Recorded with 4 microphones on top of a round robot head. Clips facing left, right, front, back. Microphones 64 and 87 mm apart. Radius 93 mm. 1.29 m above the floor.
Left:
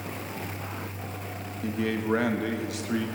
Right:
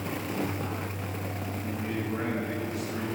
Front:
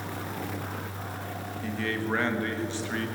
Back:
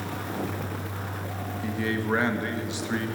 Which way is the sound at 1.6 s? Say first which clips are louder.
Left 7 dB, back 3 dB; 105° left.